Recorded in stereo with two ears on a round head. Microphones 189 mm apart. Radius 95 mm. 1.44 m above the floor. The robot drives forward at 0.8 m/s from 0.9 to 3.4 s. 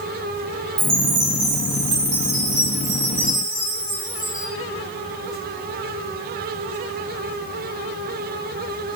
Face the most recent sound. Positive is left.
turn(degrees=-50)  # may be behind; listen again after turning